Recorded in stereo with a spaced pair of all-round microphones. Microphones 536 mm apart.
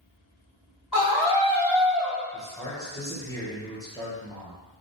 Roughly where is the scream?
Left.